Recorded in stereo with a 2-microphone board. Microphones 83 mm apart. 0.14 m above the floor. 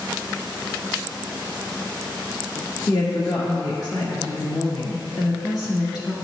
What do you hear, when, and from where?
2.9 s a woman speaking: 55° left (ahead or behind), 1.9 m